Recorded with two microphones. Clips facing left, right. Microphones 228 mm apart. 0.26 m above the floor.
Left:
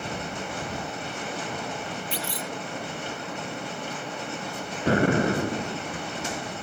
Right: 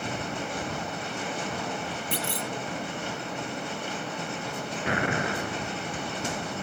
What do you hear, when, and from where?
2.1 s a clunk: 55° right (ahead or behind)
4.9 s an explosion: 40° left (ahead or behind)